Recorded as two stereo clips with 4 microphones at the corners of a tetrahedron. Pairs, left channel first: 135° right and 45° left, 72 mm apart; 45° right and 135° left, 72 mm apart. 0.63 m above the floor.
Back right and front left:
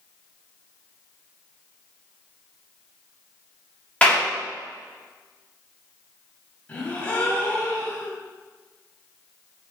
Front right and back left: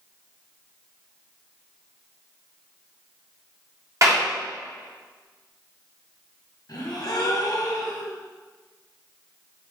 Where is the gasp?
70° right, 0.8 m.